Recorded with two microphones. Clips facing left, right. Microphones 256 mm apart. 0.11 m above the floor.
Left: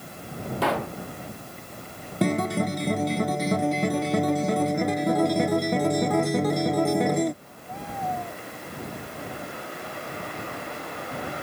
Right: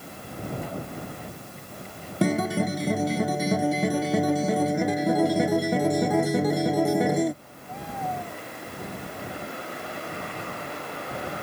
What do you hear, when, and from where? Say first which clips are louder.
0.6 s a pop: left 7 dB; 75° left (ahead or behind)
2.2 s a guitar: even; 5° right (ahead or behind)